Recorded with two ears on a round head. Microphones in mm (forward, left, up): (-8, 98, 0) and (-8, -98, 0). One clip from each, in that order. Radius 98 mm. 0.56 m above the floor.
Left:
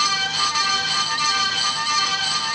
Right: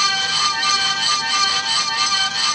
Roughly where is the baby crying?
I don't hear a baby crying.